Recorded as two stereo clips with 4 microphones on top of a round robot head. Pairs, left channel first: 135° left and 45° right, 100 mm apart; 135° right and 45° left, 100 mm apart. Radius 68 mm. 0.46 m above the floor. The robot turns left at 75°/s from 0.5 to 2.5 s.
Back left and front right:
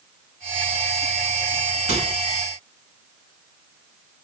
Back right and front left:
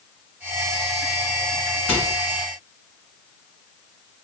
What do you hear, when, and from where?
1.9 s a microwave: 55° right, 3 m; by 2.1 s 75° right, 3 m